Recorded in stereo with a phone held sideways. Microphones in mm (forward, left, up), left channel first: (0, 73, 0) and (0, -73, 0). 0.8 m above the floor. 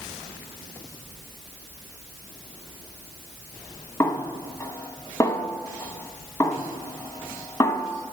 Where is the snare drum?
20° left (ahead or behind), 0.9 m.